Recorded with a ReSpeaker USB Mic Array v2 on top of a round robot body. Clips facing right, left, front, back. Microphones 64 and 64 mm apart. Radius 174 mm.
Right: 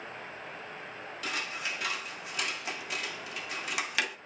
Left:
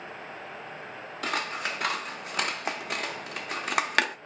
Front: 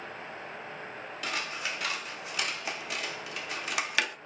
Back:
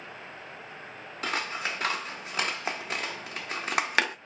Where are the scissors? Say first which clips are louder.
Left 6 dB, back 4 dB; 130° left, 1.0 m.